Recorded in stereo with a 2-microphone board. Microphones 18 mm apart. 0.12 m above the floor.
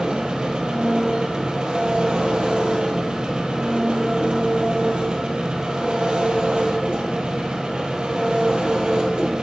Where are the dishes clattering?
No dishes clattering in this recording.